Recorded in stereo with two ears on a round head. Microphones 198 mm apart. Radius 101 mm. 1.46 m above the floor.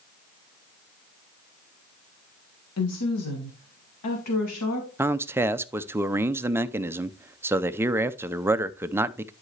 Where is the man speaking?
10° right (ahead or behind), 0.5 m.